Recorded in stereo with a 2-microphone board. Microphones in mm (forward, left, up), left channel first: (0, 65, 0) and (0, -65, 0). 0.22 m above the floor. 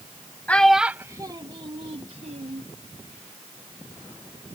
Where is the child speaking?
10° left (ahead or behind); by 2.6 s 65° right (ahead or behind).